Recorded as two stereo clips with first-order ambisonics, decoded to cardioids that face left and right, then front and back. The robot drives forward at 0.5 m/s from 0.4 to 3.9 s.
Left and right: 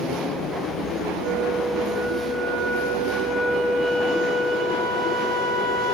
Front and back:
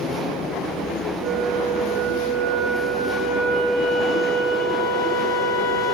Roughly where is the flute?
Behind right.